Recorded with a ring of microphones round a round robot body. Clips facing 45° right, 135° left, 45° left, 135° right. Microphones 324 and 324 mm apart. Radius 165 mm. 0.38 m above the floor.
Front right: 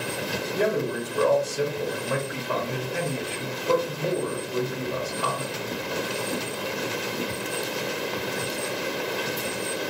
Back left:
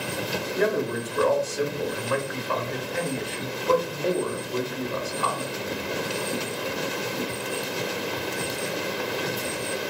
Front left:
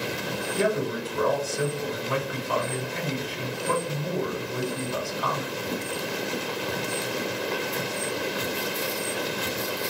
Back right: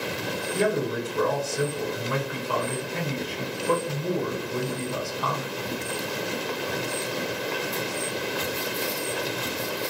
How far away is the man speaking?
About 1.3 m.